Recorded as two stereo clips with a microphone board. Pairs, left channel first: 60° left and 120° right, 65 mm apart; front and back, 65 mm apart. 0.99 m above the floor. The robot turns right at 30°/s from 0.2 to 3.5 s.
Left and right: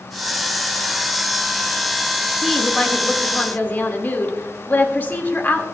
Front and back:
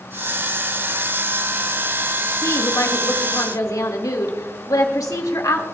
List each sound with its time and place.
2.4 s a woman speaking: 30° right, 1.9 m; by 5.6 s straight ahead, 1.9 m